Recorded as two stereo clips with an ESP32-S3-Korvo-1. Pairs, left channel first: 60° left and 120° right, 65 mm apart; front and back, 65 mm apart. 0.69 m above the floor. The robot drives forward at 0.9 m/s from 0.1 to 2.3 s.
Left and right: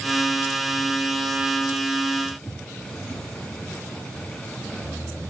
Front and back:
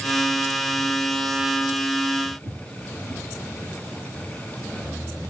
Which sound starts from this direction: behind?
Footsteps, at 2.2 s.